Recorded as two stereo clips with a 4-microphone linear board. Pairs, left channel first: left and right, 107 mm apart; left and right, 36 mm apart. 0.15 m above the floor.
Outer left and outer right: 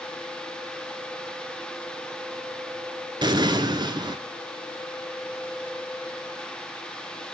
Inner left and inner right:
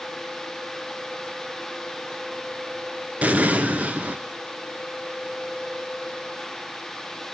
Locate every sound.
3.2 s an explosion: 45° right (ahead or behind), 0.9 m